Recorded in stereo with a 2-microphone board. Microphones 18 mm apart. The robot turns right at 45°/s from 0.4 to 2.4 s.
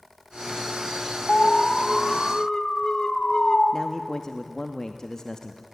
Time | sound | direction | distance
1.3 | an alarm | 85° left | 2.0 m
3.7 | a man speaking | 45° left (ahead or behind) | 1.0 m